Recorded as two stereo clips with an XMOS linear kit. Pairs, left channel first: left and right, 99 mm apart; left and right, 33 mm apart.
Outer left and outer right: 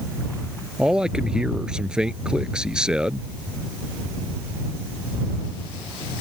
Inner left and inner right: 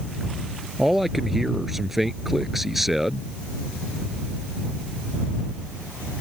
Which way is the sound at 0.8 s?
10° right (ahead or behind).